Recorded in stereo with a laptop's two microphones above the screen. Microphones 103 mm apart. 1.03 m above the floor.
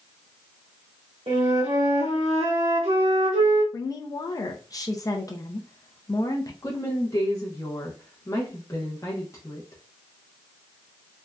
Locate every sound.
1.3 s a flute: 70° right (ahead or behind), 1.6 m
3.7 s a woman speaking: 35° left (ahead or behind), 0.5 m
6.6 s a woman speaking: 30° left (ahead or behind), 0.8 m